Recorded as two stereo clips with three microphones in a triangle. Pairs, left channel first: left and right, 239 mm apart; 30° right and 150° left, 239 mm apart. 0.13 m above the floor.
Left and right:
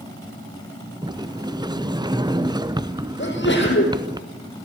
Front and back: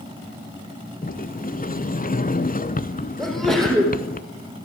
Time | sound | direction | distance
1.0 | a sliding door | 30° right | 0.6 m
3.2 | a sneeze | 60° left | 5.5 m